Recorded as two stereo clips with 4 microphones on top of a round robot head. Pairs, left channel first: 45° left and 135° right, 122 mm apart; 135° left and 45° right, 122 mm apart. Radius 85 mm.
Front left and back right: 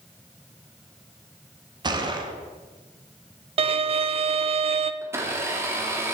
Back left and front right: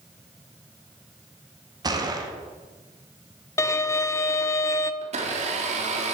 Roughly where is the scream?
I don't hear a scream.